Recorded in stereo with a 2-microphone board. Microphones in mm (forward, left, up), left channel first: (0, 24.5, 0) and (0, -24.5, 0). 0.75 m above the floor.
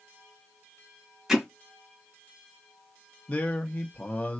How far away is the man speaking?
About 0.5 m.